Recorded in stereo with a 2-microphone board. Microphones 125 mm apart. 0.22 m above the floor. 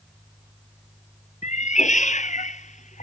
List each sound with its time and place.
1.4 s a cat meowing: 80° left